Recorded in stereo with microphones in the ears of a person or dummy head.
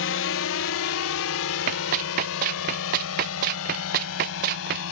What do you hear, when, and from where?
0.0 s a drone: 60° left (ahead or behind); by 4.9 s 80° left
1.7 s running footsteps: 50° right (ahead or behind); by 4.8 s 55° right (ahead or behind)